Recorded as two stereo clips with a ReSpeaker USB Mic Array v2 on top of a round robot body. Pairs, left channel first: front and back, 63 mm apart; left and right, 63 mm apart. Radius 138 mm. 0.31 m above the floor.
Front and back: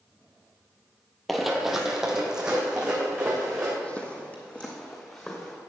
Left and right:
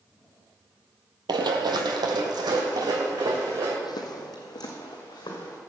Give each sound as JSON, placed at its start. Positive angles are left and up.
{"t": 1.3, "sound": "running footsteps", "azimuth_deg": -90, "distance_m": 0.8}
{"t": 3.8, "sound": "footsteps", "azimuth_deg": 75, "distance_m": 1.0}